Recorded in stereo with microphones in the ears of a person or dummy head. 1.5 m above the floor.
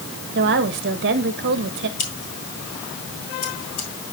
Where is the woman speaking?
65° right (ahead or behind), 1.4 m.